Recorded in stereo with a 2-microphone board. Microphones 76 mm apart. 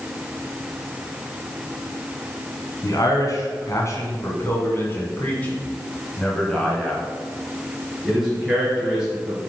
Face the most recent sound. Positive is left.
turn(degrees=-10)  # may be behind; listen again after turning